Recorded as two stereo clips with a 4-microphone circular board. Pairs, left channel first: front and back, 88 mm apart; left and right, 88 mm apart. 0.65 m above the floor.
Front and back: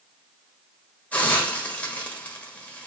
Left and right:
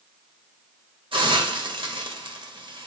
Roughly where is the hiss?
Right.